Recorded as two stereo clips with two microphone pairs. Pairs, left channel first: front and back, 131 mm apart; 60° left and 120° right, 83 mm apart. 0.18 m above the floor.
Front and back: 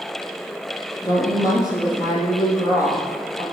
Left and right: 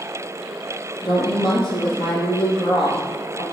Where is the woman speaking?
65° left, 5.5 m.